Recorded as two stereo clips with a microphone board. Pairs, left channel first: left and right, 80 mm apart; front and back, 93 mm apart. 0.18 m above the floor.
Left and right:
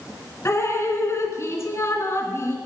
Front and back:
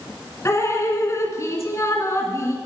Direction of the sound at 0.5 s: 50° left.